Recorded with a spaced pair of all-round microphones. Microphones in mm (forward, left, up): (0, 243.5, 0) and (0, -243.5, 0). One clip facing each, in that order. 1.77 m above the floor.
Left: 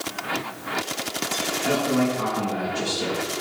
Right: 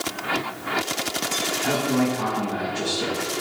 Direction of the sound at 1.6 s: 5° right (ahead or behind).